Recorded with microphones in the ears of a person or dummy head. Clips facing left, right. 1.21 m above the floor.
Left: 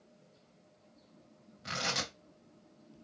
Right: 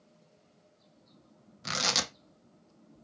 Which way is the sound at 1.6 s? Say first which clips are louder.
Right 3 dB; 65° right (ahead or behind).